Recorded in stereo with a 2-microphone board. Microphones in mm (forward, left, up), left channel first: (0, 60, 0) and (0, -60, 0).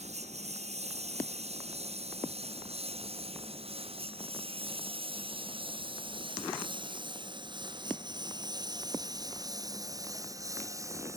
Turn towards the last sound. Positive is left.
turn(degrees=-25)  # may be behind; listen again after turning